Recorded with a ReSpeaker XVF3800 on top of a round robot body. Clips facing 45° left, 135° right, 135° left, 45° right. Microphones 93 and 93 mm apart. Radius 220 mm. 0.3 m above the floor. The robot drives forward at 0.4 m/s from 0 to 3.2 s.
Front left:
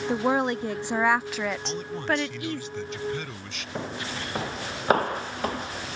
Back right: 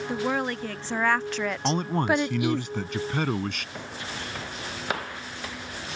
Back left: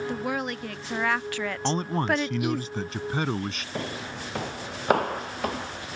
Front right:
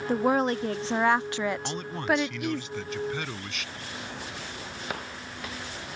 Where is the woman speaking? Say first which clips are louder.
Front left 4 dB, front right 6 dB; 10° right; by 2.6 s 155° right.